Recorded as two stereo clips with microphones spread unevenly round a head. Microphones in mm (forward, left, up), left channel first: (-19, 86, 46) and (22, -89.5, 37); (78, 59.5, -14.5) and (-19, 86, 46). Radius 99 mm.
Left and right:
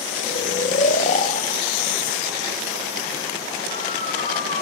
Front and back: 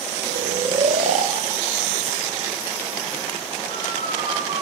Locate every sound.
0.3 s snoring: 155° left, 2.5 m